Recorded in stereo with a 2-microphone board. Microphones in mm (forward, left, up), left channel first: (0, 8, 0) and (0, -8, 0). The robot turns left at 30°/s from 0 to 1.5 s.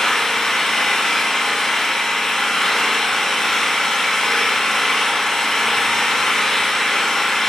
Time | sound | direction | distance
0.0 | an engine running | 95° left | 2.5 m